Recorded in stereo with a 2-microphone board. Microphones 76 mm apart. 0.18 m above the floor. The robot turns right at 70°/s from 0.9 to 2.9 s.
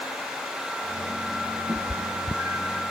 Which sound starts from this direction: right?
A cat meowing, at 1.7 s.